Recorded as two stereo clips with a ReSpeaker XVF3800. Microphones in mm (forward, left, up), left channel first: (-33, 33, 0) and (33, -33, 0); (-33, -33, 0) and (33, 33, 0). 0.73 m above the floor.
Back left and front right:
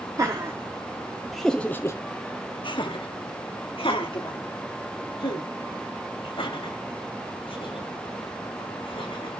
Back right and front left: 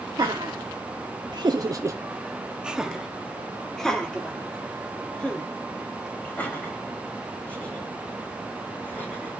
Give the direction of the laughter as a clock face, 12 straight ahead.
12 o'clock.